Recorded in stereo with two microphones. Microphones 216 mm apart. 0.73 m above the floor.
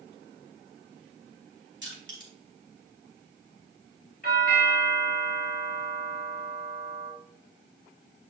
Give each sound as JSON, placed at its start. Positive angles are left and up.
{"t": 1.8, "sound": "crushing", "side_deg": -60, "distance_m": 3.5}
{"t": 4.2, "sound": "a doorbell", "side_deg": 45, "distance_m": 4.5}